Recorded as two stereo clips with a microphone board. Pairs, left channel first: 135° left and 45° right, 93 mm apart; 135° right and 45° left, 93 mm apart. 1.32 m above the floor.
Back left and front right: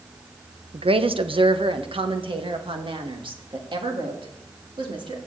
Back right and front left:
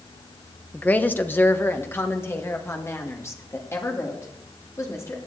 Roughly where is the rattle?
No rattle in this recording.